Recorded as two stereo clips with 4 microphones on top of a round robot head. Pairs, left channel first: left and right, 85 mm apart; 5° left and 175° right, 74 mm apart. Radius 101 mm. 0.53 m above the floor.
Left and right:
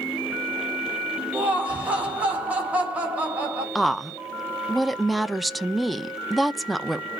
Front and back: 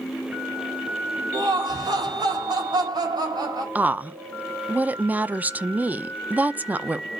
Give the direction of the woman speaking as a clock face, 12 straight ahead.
6 o'clock.